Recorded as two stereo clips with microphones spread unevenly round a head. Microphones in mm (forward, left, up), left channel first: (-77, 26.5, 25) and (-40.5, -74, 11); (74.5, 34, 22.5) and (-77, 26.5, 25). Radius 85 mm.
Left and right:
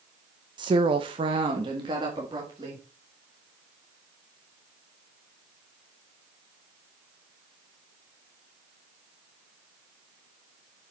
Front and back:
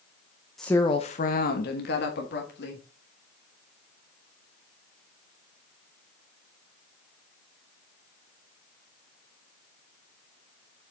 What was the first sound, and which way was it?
A woman speaking, 85° right.